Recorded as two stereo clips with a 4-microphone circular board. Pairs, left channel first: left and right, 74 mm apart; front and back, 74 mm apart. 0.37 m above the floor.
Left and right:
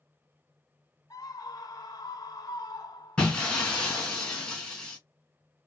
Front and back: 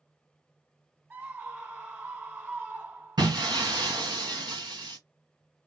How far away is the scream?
About 3 m.